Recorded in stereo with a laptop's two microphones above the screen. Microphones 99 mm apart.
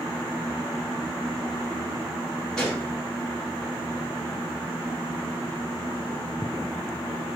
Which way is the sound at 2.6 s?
5° left (ahead or behind).